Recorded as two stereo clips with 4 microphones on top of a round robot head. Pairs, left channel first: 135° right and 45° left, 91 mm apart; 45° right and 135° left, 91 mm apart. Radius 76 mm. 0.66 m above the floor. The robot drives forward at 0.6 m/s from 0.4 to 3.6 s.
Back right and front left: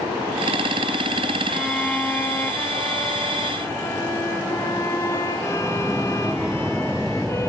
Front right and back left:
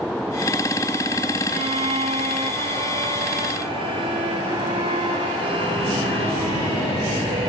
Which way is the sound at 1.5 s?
135° left.